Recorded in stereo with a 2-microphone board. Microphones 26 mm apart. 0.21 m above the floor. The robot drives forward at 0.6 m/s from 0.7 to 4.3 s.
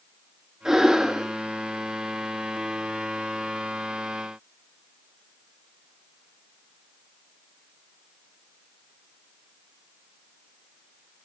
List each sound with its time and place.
0.7 s breathing: 10° right (ahead or behind), 2.5 m; by 1.3 s 15° right (ahead or behind), 2 m